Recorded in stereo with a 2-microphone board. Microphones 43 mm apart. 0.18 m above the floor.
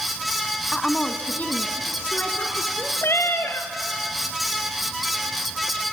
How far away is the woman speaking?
About 1.0 m.